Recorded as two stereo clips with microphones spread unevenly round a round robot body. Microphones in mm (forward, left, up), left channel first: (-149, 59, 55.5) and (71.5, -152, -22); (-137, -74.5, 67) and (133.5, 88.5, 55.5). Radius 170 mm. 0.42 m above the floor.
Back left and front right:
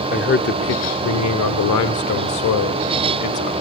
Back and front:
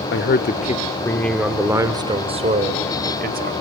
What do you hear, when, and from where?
0.1 s a man speaking: 160° right, 1.3 m; by 3.5 s 90° left, 3 m